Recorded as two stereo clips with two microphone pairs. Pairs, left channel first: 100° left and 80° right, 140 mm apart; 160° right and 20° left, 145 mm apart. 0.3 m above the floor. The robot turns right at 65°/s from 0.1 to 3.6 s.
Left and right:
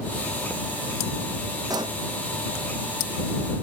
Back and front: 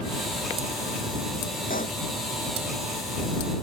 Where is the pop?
145° right; by 2.0 s 125° right.